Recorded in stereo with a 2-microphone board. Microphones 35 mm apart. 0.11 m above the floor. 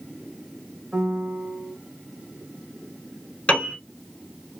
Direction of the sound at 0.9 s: 40° right (ahead or behind).